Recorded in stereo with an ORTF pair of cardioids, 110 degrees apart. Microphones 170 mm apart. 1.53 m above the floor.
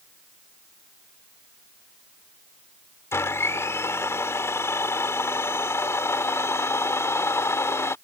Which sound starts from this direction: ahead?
A blender, at 3.1 s.